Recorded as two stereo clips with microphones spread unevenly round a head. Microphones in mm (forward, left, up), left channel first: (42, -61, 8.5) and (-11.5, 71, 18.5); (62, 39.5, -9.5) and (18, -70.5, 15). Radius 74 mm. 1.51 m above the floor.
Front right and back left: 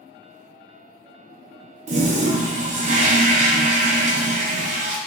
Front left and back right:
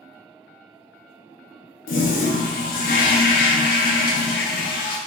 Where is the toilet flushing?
70° left, 0.5 m.